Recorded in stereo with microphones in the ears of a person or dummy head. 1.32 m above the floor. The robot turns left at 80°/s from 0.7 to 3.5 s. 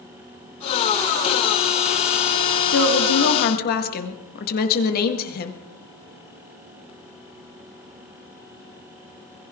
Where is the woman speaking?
115° left, 1.8 m; by 5.6 s 50° left, 1.8 m.